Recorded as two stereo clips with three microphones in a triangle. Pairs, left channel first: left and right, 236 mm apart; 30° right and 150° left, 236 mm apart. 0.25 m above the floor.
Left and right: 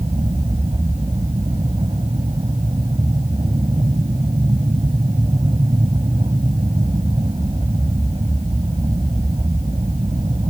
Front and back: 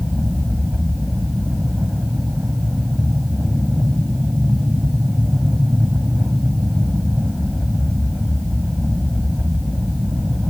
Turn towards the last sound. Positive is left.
turn(degrees=-125)